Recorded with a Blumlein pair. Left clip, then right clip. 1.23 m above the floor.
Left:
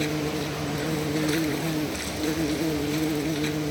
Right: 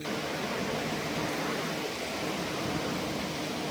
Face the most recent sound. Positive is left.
turn(degrees=35)